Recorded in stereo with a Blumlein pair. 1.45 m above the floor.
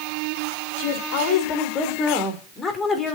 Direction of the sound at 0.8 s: 45° left.